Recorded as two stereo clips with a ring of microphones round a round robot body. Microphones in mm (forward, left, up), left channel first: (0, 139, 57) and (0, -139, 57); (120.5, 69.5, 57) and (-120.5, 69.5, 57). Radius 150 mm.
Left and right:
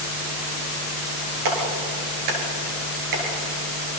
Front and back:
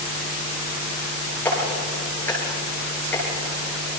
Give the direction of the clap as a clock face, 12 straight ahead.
3 o'clock.